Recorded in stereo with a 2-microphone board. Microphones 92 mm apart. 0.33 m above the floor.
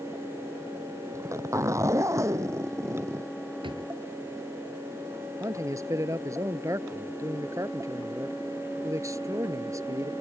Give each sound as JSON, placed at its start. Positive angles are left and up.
{"t": 1.1, "sound": "a zipper", "side_deg": -35}
{"t": 3.6, "sound": "a drawer", "side_deg": -65}
{"t": 5.4, "sound": "a man speaking", "side_deg": -35}